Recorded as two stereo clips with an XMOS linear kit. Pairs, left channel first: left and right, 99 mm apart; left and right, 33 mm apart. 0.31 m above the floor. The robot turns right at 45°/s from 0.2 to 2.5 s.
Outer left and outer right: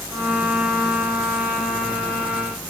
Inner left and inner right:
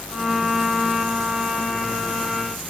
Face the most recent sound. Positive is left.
No sound to turn to.